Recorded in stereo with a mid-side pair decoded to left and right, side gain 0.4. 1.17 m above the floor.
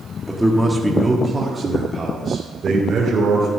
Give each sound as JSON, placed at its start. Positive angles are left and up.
{"t": 0.3, "sound": "a man speaking", "azimuth_deg": 5, "distance_m": 2.0}